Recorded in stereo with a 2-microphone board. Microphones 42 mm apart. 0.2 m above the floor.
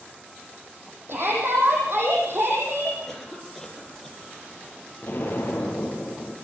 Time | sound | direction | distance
1.1 | a shout | 60° right (ahead or behind) | 8 m
3.1 | a cough | 5° left (ahead or behind) | 6.5 m
5.0 | an explosion | 45° left (ahead or behind) | 4.5 m